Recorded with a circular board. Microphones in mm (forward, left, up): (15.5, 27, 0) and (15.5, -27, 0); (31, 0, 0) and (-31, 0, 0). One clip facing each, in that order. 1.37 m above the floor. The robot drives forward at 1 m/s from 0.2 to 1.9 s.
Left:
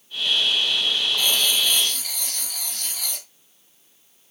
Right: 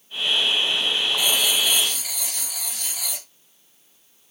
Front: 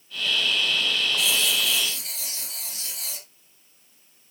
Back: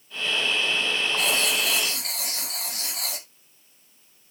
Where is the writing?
160° right, 0.9 m; by 3.3 s 170° right, 1.5 m.